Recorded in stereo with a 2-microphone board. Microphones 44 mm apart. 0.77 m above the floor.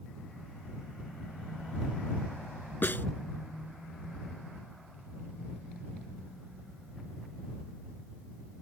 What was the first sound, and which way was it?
A snare drum, 45° left (ahead or behind).